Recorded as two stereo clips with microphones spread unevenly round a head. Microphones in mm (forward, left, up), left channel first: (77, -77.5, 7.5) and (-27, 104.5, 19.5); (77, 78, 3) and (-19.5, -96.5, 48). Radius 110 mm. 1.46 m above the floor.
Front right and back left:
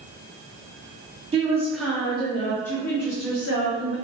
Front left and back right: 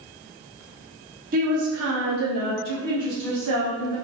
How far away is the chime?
I don't hear a chime.